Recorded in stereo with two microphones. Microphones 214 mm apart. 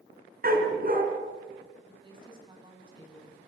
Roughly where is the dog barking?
Right.